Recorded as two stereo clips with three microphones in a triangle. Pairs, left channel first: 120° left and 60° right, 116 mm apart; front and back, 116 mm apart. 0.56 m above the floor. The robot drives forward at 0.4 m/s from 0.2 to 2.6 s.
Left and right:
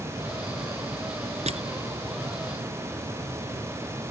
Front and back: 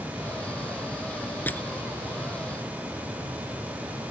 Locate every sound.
1.5 s crushing: 75° right